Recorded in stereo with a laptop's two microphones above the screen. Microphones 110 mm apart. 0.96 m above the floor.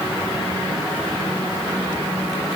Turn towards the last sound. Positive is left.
No sound to turn to.